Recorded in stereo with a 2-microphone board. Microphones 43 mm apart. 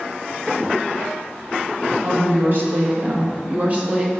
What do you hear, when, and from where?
2.0 s a woman speaking: 65° right (ahead or behind), 2.5 m; by 4.1 s 30° right (ahead or behind), 1.4 m